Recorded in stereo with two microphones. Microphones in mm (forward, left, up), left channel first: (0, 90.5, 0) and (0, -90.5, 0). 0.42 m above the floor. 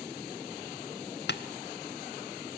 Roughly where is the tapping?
Left.